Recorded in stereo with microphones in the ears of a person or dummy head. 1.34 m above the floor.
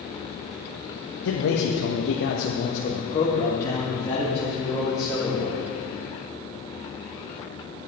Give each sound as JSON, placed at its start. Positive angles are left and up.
{"t": 1.2, "sound": "a man speaking", "side_deg": 80, "distance_m": 1.3}